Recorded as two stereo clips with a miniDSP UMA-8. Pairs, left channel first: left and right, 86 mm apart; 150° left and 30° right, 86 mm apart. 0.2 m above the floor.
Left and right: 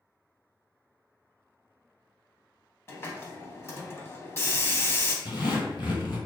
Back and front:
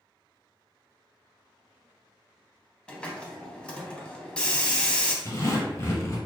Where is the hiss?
85° left, 0.5 m.